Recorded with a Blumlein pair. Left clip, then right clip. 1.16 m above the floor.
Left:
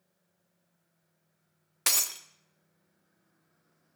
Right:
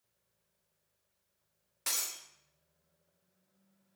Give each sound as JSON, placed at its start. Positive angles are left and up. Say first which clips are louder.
{"t": 1.9, "sound": "breaking glass", "louder": "left 8 dB", "azimuth_deg": 60, "distance_m": 1.3}